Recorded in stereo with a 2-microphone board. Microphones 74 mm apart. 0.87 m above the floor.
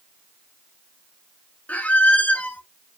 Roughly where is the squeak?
Centre.